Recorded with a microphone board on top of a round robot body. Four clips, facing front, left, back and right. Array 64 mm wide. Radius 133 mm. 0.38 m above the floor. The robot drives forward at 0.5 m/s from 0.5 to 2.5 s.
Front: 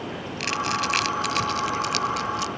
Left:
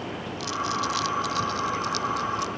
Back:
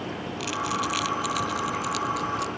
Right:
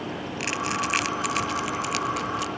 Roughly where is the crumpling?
Ahead right.